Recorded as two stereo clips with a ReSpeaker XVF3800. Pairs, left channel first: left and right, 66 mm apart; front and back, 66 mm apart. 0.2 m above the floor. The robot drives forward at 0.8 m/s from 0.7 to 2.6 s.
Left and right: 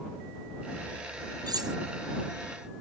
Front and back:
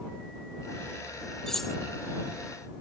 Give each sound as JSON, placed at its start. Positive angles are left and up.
{"t": 1.5, "sound": "cutlery clinking", "azimuth_deg": -85}